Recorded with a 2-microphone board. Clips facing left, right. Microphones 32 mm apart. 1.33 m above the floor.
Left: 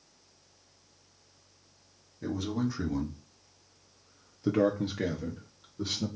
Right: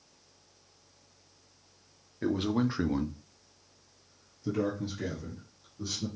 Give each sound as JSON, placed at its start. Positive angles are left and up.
{"t": 2.2, "sound": "a man speaking", "side_deg": -55, "distance_m": 1.1}